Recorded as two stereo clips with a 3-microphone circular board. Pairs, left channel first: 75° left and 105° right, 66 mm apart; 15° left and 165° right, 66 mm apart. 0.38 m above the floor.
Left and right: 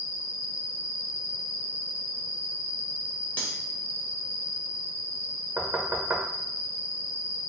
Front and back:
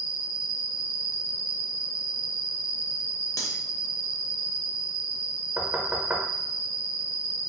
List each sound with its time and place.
0.0 s an insect: 80° right, 1.4 m
3.4 s cutlery clinking: 15° left, 0.8 m
5.6 s knocking: 125° right, 0.5 m